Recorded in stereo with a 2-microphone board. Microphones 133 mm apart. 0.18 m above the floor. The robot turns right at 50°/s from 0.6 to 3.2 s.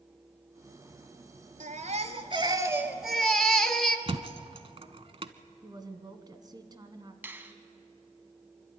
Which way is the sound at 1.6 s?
75° right.